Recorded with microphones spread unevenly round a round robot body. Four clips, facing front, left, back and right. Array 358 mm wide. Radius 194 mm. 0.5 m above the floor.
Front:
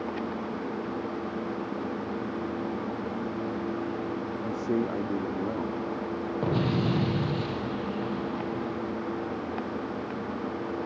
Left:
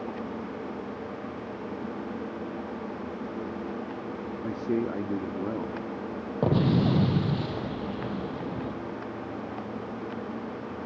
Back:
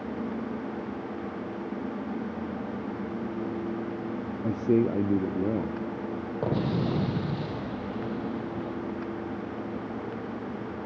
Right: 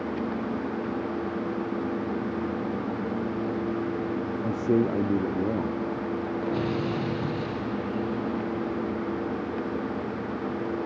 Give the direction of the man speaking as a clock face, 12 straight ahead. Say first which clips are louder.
Right 4 dB, back 6 dB; 5 o'clock.